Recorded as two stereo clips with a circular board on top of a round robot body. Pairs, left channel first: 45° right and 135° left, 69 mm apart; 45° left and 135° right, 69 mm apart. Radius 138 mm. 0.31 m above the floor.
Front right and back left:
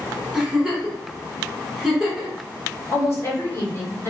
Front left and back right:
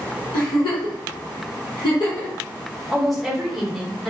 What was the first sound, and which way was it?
A giggle, 50° left.